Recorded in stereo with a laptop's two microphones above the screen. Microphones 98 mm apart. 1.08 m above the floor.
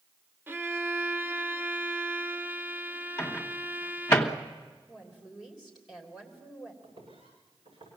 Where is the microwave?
25° left (ahead or behind), 1.4 m.